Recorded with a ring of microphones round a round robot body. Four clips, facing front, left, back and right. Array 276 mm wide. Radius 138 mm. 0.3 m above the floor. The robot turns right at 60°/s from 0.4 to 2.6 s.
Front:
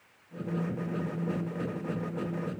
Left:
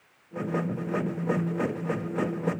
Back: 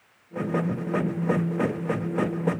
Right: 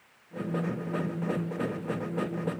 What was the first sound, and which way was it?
Only background noise.